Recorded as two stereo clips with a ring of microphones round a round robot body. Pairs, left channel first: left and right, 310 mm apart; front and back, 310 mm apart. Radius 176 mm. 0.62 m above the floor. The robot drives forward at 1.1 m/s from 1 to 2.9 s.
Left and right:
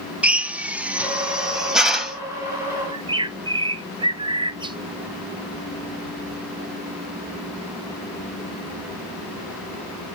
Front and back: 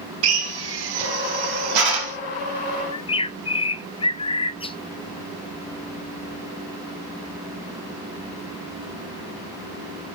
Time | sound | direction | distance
0.2 | a drill | 175° right | 0.7 m
2.9 | a bird | 45° right | 0.5 m